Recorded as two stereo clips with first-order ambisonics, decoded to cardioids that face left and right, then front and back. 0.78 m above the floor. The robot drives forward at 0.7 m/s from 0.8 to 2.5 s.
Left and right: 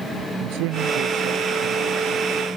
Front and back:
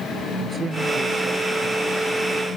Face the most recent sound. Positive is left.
turn(degrees=-115)